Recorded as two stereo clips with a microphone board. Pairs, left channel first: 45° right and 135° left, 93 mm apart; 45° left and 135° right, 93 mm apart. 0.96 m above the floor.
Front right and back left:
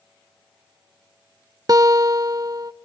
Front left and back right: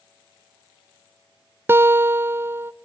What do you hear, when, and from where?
1.7 s a guitar: 165° left, 0.5 m